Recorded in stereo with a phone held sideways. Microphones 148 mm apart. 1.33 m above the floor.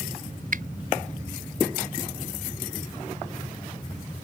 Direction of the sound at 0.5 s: 70° right (ahead or behind).